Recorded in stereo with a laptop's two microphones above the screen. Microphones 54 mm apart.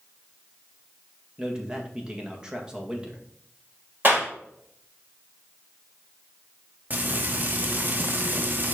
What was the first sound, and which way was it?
A man speaking, 15° right (ahead or behind).